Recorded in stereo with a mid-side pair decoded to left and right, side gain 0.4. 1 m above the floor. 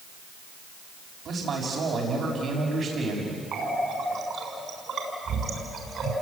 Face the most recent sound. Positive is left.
turn(degrees=-65)